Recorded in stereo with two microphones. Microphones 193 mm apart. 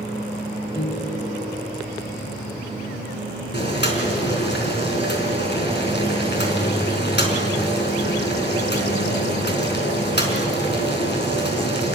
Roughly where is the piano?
Left.